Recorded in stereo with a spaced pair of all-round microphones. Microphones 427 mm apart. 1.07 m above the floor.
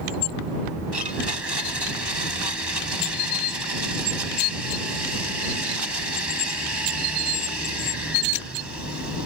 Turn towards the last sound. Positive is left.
turn(degrees=-70)  # may be behind; listen again after turning